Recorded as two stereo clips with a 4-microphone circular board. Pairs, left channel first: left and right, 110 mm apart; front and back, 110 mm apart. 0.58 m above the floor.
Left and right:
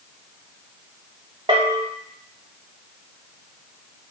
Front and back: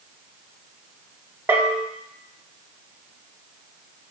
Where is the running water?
No running water in this recording.